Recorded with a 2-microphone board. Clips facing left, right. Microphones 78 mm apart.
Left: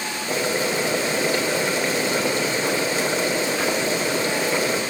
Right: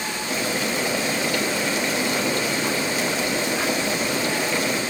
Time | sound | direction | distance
0.3 | boiling | 30° left (ahead or behind) | 3.5 m